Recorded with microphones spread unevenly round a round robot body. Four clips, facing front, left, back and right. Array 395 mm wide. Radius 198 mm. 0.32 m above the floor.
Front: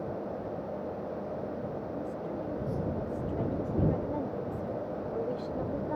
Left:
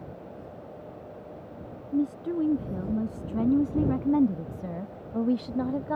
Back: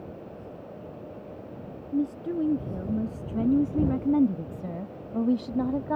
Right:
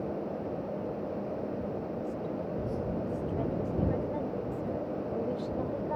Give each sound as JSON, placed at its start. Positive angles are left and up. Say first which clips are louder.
{"t": 1.9, "sound": "a woman speaking", "louder": "left 7 dB, back 8 dB", "azimuth_deg": 130}